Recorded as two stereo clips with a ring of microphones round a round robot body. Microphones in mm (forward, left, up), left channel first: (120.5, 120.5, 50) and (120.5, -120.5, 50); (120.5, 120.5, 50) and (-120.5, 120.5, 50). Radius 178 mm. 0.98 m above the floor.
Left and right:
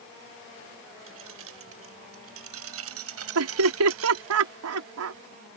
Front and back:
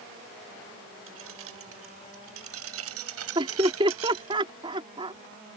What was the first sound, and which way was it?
Keys jangling, 135° right.